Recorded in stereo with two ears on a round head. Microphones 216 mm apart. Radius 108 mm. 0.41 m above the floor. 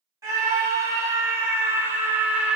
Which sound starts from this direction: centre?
A scream, at 0.2 s.